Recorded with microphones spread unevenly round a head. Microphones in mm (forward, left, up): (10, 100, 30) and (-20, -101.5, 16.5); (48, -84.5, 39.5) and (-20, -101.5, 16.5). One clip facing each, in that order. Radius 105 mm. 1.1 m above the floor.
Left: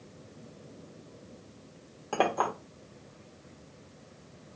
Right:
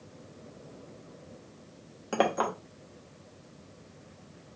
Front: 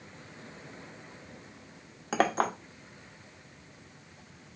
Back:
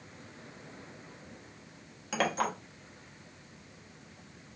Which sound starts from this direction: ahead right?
A clink, at 2.1 s.